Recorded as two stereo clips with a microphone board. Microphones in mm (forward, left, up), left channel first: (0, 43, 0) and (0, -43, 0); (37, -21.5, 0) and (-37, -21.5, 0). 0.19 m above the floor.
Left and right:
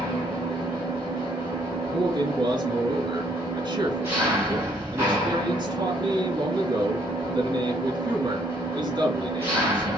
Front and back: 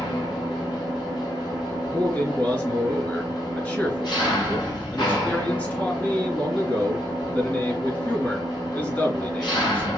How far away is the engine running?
About 3.5 m.